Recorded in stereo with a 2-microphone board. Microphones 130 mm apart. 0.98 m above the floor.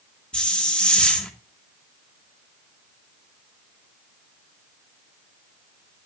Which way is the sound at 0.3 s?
10° left (ahead or behind).